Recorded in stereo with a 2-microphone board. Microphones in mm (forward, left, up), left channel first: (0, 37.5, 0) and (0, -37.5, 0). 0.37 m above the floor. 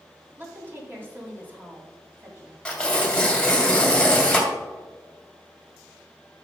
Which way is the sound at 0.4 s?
30° right (ahead or behind).